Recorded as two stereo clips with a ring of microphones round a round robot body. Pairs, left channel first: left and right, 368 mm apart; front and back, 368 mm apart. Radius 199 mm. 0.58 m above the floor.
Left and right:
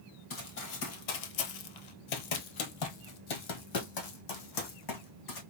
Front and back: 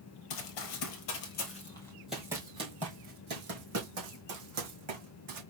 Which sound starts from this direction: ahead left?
Running footsteps, at 0.3 s.